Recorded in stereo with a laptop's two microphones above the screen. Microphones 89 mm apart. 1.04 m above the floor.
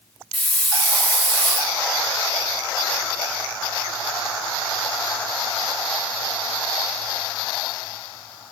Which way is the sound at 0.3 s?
10° left (ahead or behind).